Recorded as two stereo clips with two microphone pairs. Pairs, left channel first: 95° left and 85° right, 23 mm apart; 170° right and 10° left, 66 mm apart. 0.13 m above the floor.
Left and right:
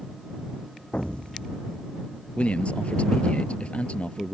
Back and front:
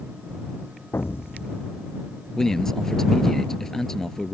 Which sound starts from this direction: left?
A man speaking, at 2.4 s.